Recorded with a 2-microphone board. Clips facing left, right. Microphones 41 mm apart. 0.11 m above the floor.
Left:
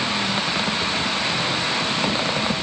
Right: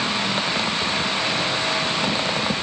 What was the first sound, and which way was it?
Only background noise.